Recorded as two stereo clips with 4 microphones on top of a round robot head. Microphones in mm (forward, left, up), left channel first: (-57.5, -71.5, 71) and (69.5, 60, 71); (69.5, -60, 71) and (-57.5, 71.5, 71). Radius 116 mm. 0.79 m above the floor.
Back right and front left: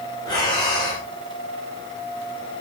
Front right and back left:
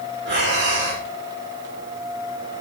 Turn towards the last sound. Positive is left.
turn(degrees=160)